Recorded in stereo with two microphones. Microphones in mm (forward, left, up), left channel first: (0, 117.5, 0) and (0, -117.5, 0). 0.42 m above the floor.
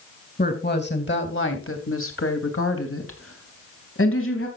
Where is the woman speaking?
40° left (ahead or behind), 2.5 m; by 4.5 s 60° left (ahead or behind), 3.5 m.